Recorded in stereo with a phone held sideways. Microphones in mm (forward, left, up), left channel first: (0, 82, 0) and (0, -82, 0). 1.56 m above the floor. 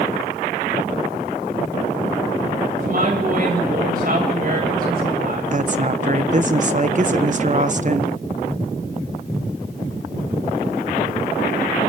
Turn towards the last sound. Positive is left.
turn(degrees=-45)  # may be behind; listen again after turning